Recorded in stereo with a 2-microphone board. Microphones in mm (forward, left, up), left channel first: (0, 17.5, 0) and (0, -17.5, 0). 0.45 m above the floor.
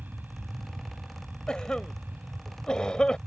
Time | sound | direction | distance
0.0 | an aircraft | 65° right (ahead or behind) | ?
1.5 | a cough | 30° left (ahead or behind) | ?